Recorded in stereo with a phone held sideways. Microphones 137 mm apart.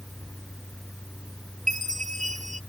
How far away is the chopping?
No chopping in this recording.